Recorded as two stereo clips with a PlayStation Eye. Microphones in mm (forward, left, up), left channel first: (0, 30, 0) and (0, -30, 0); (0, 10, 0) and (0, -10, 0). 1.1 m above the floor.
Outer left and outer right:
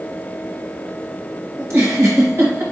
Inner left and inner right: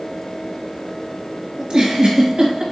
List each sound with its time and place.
1.6 s a giggle: 55° right (ahead or behind), 1.3 m